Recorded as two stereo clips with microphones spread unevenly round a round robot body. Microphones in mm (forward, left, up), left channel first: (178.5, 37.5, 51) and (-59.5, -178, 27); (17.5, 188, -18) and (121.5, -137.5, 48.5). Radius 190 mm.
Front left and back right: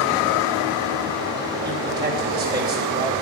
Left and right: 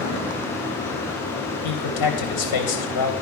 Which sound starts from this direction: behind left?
A man speaking, at 1.6 s.